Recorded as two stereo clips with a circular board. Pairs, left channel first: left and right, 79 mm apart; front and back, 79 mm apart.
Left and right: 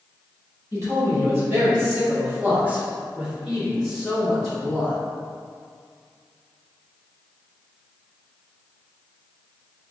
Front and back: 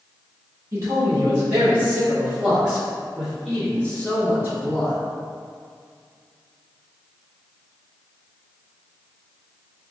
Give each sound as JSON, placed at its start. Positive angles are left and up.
{"t": 0.7, "sound": "a man speaking", "azimuth_deg": -135, "distance_m": 1.9}